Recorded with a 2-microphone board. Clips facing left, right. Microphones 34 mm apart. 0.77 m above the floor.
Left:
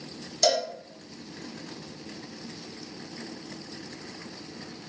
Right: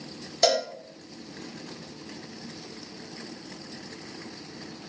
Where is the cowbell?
30° right (ahead or behind), 0.9 m.